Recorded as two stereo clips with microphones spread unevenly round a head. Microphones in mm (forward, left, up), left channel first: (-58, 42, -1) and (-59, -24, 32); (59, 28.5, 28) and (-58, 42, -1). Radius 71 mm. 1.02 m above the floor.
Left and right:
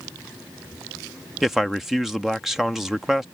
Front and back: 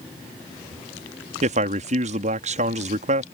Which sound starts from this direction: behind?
A man speaking, at 1.4 s.